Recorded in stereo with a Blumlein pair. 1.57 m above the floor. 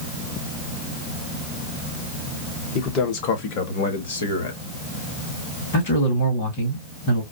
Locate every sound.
2.8 s a man speaking: 35° left, 1.4 m; by 4.6 s 70° left, 1.8 m
5.7 s a man speaking: 50° left, 2.5 m